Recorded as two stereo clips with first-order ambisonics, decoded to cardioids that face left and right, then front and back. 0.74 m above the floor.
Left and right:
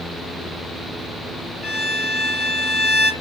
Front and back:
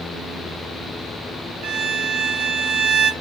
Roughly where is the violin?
Behind.